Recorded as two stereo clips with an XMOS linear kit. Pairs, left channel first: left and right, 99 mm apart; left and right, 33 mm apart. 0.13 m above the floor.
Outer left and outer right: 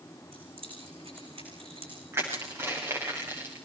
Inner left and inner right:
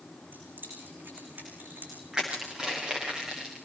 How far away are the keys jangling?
About 8 m.